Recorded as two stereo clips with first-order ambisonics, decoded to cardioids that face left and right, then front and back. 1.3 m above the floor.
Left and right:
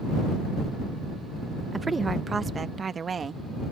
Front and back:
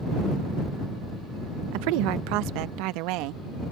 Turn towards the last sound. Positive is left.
turn(degrees=-160)